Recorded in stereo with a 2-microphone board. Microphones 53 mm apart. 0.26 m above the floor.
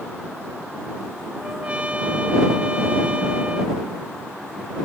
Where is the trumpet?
25° right (ahead or behind).